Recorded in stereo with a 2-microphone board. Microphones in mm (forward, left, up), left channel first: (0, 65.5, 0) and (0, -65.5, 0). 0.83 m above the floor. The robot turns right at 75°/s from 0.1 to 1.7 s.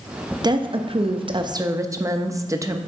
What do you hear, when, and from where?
0.4 s a woman speaking: 130° right, 0.6 m; by 2.8 s 35° right, 0.6 m